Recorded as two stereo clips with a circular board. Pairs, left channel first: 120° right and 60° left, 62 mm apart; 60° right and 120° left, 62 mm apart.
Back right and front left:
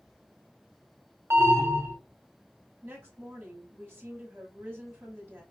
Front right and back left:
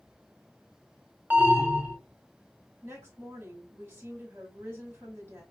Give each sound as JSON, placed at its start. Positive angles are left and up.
{"t": 1.3, "sound": "an alarm", "azimuth_deg": 75, "distance_m": 0.9}
{"t": 2.8, "sound": "a woman speaking", "azimuth_deg": 100, "distance_m": 1.6}